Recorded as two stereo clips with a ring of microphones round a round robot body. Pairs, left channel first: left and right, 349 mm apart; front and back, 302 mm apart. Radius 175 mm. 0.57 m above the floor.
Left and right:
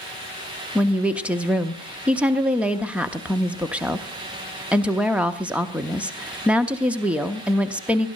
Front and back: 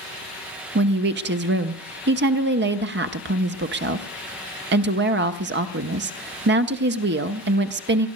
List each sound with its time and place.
0.8 s a woman speaking: 175° right, 0.8 m